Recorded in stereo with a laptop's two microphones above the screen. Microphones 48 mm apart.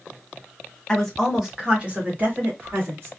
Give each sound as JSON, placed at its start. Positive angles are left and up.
{"t": 0.9, "sound": "a woman speaking", "side_deg": 10, "distance_m": 1.0}